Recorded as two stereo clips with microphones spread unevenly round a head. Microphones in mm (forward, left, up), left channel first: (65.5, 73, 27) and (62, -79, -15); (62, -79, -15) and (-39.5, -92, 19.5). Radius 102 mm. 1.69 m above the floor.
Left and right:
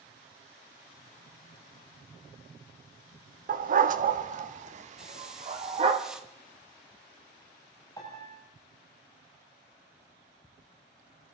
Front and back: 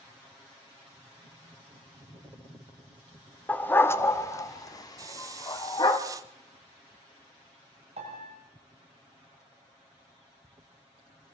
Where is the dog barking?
85° right, 1.3 m; by 6.0 s 40° right, 2.5 m.